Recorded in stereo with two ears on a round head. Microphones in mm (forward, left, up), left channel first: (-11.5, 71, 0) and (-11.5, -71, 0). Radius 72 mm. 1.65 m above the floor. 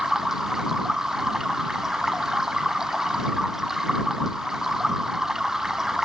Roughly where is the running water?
Centre.